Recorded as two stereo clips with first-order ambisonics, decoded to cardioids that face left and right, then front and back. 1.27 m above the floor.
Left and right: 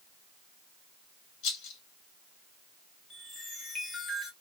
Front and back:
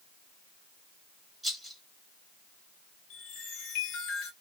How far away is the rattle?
About 1.4 m.